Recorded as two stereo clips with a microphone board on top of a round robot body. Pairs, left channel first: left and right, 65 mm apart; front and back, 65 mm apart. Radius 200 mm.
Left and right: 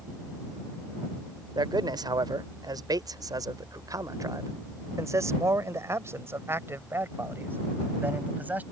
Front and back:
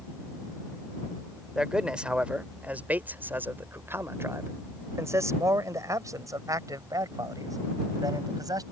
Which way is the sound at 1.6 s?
100° right.